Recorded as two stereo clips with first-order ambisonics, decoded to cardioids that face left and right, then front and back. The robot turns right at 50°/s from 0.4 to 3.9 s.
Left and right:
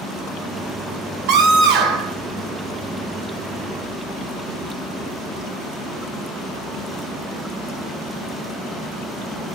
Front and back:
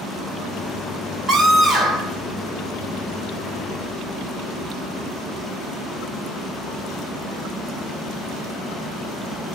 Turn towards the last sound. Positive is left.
turn(degrees=25)